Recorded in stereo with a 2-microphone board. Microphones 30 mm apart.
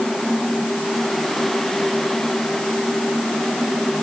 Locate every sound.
Only background noise.